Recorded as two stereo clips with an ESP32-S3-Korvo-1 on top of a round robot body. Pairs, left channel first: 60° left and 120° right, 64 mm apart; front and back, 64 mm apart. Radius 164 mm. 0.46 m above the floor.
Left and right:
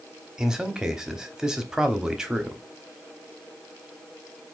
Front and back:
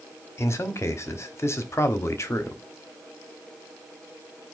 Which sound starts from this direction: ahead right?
A man speaking, at 0.4 s.